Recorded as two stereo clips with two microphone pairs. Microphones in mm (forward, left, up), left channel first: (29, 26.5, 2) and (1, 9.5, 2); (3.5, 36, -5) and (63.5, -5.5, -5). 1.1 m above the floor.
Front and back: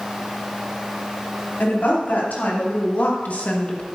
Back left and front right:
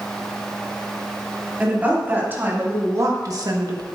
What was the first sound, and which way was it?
A woman speaking, 35° left.